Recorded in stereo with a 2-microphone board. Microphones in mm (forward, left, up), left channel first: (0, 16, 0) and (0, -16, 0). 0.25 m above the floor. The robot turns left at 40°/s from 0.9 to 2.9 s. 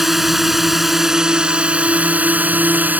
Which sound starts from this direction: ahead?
A drone, at 0.0 s.